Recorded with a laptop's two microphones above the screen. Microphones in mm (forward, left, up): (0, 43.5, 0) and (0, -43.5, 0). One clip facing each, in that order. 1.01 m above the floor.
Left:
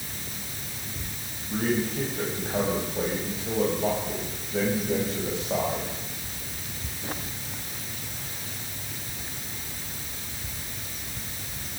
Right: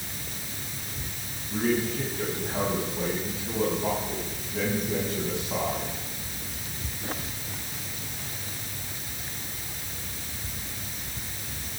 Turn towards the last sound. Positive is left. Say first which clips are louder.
# even
turn(degrees=85)